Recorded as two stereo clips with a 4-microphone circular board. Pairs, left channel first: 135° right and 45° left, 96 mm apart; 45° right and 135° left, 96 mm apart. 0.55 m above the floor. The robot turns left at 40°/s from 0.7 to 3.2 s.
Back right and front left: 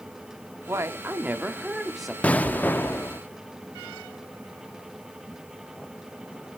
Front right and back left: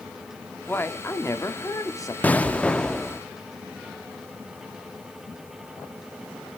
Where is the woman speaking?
10° left, 1.0 m; by 2.1 s 50° right, 1.0 m.